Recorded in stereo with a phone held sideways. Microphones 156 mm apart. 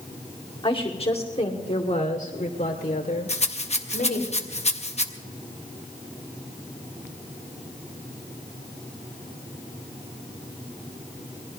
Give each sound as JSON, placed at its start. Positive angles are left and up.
{"t": 0.6, "sound": "a woman speaking", "side_deg": 35, "distance_m": 2.0}
{"t": 3.3, "sound": "a rattle", "side_deg": 45, "distance_m": 1.0}